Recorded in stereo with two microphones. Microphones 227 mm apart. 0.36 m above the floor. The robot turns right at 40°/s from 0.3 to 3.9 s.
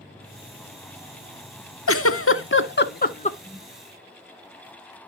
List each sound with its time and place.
1.9 s a giggle: 75° left (ahead or behind), 0.5 m; by 3.3 s 30° left (ahead or behind), 0.5 m
3.4 s a whoosh: 15° right (ahead or behind), 8 m; by 3.7 s 25° right (ahead or behind), 8 m